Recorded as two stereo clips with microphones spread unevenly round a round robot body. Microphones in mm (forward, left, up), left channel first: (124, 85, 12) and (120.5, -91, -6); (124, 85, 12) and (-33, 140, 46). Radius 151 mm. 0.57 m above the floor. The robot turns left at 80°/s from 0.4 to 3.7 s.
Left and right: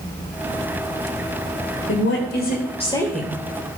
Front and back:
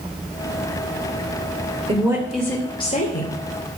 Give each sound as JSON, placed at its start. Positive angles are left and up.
{"t": 1.9, "sound": "a woman speaking", "azimuth_deg": 105, "distance_m": 2.5}